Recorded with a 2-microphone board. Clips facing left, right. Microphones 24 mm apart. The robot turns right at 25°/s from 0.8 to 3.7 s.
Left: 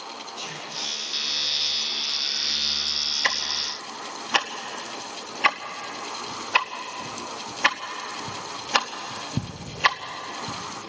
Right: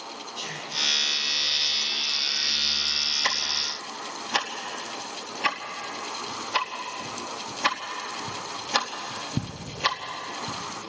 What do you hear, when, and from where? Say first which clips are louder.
0.3 s whispering: right 2 dB; 40° right (ahead or behind), 6.5 m
3.2 s ticking: left 1 dB; 30° left (ahead or behind), 1.2 m; by 10.9 s 40° left (ahead or behind), 1.2 m